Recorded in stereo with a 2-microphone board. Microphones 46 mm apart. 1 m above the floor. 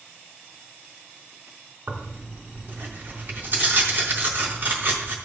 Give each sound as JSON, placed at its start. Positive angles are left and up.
{"t": 1.9, "sound": "tearing paper", "side_deg": -45, "distance_m": 3.0}